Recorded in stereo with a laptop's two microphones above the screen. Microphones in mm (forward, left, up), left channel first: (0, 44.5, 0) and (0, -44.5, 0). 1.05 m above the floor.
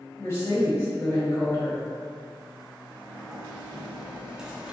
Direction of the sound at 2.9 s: 10° right (ahead or behind).